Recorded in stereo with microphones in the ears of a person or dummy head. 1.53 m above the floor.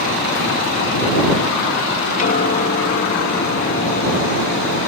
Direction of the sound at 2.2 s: 45° left (ahead or behind).